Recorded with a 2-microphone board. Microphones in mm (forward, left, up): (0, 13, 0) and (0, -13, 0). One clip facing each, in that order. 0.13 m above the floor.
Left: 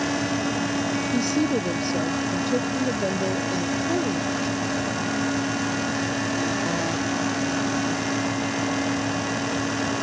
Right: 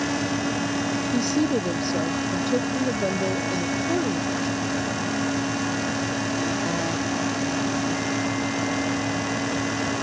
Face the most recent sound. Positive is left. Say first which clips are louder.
# right 1 dB
turn(degrees=-5)  # may be behind; listen again after turning